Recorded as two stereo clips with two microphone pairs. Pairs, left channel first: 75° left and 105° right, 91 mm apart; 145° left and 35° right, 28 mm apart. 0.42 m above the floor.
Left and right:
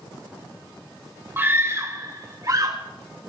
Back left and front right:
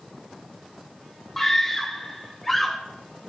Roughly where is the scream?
Behind right.